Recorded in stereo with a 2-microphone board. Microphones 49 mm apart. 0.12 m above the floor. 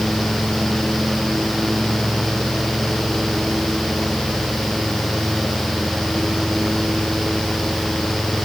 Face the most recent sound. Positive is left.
No sound to turn to.